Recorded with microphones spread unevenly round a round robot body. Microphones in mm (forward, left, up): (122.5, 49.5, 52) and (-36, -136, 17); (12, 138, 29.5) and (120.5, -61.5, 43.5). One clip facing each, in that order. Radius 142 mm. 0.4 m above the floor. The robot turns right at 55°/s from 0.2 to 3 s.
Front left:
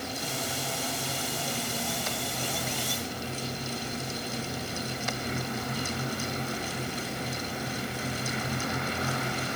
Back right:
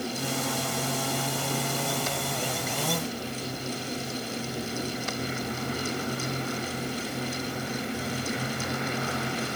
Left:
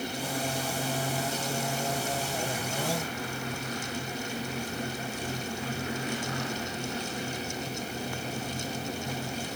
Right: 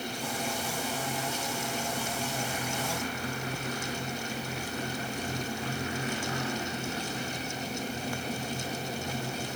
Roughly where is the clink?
No clink in this recording.